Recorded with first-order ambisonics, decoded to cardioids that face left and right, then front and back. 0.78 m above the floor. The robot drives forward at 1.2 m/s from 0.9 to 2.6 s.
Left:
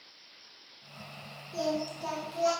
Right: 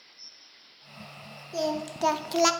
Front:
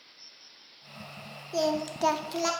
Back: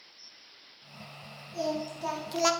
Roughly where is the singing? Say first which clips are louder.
Right 2 dB, front 4 dB; ahead right.